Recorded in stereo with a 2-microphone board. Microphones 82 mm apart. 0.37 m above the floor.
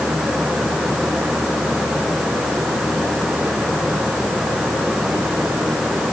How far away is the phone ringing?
I don't hear a phone ringing.